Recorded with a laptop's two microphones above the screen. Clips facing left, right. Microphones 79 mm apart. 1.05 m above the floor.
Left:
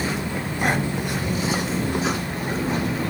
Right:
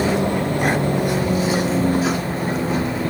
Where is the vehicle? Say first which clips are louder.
Right 7 dB; 60° right (ahead or behind); by 3.1 s 30° right (ahead or behind).